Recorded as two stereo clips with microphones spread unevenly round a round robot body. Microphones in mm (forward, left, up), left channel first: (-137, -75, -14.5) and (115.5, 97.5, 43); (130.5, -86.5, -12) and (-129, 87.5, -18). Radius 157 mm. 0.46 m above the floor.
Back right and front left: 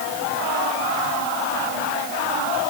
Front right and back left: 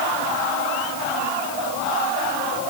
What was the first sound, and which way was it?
Only background noise.